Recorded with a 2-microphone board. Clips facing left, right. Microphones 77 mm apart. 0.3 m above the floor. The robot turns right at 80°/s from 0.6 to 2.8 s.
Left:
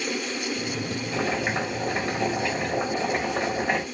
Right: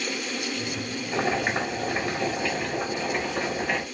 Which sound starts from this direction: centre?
Boiling, at 1.1 s.